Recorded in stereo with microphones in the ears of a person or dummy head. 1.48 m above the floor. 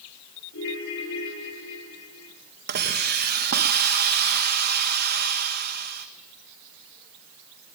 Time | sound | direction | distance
0.5 | a ringtone | 75° left (ahead or behind) | 7.5 m
2.7 | a hiss | 50° right (ahead or behind) | 1.7 m